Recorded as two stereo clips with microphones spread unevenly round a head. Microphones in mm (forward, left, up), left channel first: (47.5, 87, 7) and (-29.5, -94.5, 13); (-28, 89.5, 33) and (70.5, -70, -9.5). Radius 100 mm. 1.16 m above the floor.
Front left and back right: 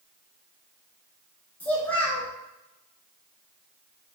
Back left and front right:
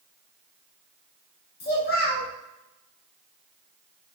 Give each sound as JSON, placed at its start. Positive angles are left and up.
{"t": 1.6, "sound": "a child speaking", "azimuth_deg": 150, "distance_m": 0.9}